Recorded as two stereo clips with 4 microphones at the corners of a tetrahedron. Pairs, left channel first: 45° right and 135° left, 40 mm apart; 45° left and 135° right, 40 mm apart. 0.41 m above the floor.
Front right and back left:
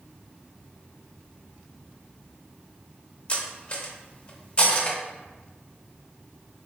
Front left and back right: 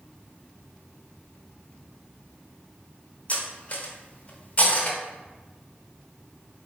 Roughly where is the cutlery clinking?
Ahead.